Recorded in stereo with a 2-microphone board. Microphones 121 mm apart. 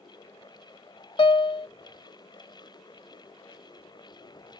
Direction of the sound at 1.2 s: 45° left (ahead or behind).